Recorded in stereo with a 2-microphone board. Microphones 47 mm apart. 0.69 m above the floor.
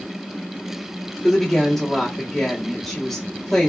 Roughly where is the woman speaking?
Centre.